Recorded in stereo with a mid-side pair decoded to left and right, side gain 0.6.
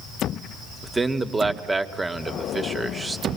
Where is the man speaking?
15° right, 2 m.